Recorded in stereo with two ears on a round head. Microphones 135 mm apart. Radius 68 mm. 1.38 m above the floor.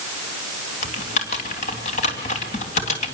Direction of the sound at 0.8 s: 50° left (ahead or behind).